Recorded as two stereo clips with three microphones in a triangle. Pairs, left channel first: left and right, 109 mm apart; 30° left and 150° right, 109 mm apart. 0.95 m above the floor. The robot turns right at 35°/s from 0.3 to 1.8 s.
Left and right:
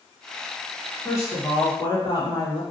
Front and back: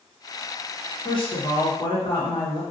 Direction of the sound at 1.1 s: 30° left.